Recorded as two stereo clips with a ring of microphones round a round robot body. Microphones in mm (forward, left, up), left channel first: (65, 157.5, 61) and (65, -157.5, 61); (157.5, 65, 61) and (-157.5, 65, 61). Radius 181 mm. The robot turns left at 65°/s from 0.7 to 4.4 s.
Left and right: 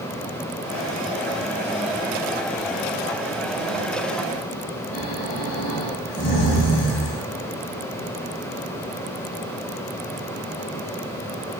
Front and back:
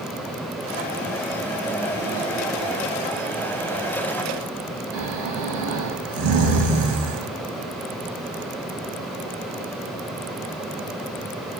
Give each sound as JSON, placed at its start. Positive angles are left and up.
{"t": 4.9, "sound": "snoring", "azimuth_deg": 150, "distance_m": 1.1}